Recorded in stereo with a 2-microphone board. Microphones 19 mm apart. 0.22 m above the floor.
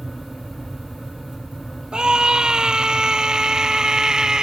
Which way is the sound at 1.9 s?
45° right (ahead or behind).